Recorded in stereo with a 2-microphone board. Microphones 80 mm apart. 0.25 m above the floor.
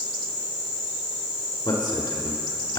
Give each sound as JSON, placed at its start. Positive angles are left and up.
{"t": 1.6, "sound": "a man speaking", "side_deg": 60, "distance_m": 3.5}